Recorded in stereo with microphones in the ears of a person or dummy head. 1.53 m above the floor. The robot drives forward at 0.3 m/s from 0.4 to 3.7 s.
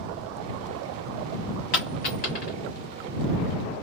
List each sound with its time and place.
1.7 s a dropped coin: 40° left (ahead or behind), 1.0 m